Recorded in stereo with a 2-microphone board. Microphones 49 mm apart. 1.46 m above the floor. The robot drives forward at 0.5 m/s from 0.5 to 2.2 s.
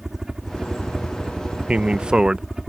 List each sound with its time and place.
0.0 s a helicopter: 10° right (ahead or behind)
1.7 s a man speaking: 25° right (ahead or behind); by 2.5 s 20° right (ahead or behind)